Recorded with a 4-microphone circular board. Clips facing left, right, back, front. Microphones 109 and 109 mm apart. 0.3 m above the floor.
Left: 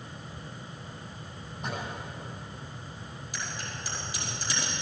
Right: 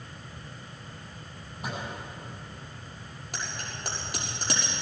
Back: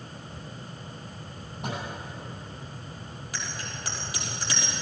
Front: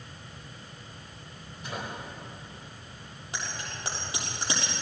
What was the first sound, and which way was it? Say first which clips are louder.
A microwave: even, back 3 dB; 175° right.